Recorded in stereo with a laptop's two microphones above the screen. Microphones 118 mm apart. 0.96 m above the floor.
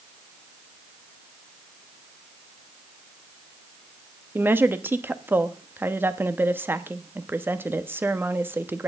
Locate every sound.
4.3 s a woman speaking: 20° right (ahead or behind), 1.2 m